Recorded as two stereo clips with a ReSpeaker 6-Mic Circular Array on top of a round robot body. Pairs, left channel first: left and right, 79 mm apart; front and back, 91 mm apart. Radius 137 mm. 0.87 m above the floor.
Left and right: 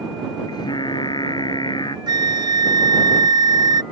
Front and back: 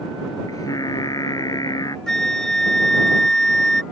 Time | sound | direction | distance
0.5 | singing | 55° left | ?
2.1 | a flute | 85° right | ?